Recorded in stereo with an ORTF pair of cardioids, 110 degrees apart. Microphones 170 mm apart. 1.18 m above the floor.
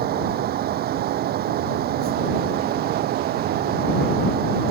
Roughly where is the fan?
Ahead right.